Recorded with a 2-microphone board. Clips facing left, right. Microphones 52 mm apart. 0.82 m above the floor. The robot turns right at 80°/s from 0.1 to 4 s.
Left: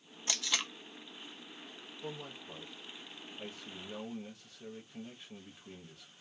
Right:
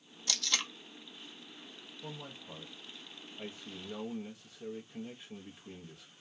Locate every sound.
0.3 s tape being pulled: 30° left (ahead or behind), 0.5 m; by 0.7 s 5° right (ahead or behind), 0.5 m
2.0 s a man speaking: 5° right (ahead or behind), 0.7 m